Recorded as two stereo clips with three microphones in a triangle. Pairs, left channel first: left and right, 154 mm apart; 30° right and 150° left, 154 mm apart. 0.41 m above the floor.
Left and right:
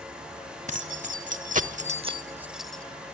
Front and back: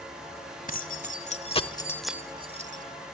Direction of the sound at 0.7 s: 55° right.